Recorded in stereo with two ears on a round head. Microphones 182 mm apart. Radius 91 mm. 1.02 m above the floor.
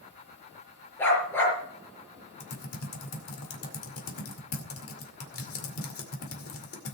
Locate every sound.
1.0 s a dog barking: 10° left (ahead or behind), 4.5 m
2.4 s typing on a keyboard: 75° left (ahead or behind), 2 m